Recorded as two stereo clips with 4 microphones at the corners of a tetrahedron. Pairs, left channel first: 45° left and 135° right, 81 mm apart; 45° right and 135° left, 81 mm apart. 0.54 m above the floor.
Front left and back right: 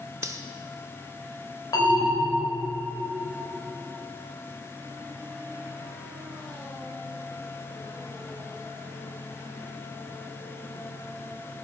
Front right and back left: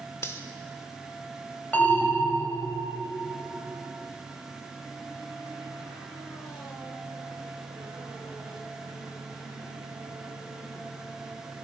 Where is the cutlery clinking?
95° right, 0.9 m.